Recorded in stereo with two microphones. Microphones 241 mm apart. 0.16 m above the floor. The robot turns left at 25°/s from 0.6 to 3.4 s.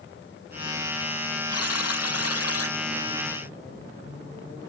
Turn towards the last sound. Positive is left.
turn(degrees=50)